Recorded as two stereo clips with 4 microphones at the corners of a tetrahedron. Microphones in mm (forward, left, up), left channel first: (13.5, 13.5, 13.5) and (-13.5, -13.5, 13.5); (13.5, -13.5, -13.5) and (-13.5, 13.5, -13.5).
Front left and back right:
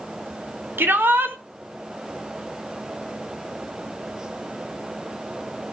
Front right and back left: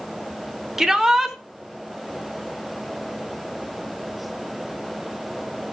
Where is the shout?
140° right, 2.5 m.